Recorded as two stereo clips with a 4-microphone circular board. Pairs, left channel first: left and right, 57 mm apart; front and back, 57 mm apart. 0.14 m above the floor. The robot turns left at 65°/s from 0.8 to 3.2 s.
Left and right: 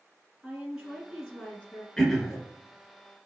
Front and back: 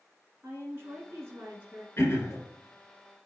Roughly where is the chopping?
No chopping in this recording.